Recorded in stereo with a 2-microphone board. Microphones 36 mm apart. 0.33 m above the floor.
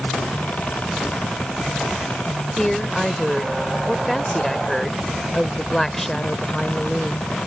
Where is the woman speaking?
5° left (ahead or behind).